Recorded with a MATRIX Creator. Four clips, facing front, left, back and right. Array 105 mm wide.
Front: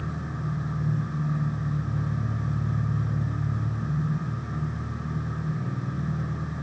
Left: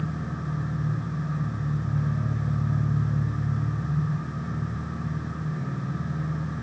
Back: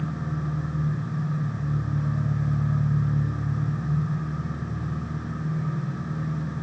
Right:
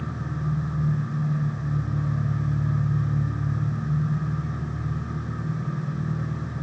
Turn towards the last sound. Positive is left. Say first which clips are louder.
# right 1 dB, back 3 dB
turn(degrees=145)